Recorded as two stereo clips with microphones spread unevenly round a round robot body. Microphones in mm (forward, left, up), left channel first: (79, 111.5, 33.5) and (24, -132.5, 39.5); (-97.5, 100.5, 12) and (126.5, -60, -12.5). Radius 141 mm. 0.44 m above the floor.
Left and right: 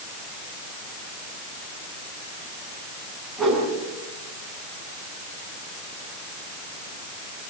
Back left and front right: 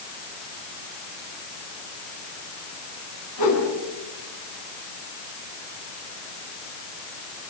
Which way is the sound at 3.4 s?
165° left.